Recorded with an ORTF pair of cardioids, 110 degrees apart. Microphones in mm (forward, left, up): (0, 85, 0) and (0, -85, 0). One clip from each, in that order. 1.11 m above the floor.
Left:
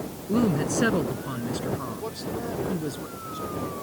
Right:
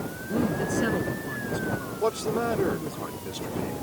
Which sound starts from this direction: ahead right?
A man speaking, at 2.0 s.